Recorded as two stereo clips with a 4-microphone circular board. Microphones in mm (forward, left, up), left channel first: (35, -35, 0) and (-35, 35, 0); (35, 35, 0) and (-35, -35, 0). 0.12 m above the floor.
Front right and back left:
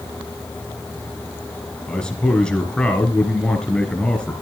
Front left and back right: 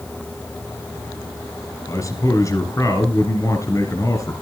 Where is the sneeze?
I don't hear a sneeze.